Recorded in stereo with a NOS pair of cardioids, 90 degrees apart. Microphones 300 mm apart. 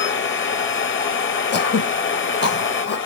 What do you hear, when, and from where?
0.0 s a machine running: 40° left, 1.2 m
1.5 s throat clearing: 35° left, 1.0 m